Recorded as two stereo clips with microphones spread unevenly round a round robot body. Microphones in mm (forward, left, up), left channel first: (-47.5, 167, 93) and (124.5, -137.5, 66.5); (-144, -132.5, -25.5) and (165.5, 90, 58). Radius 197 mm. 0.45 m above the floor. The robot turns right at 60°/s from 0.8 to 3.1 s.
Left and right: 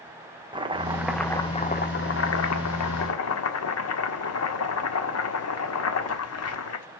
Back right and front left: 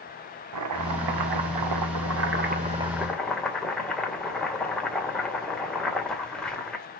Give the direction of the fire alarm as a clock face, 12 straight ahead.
No fire alarm in this recording.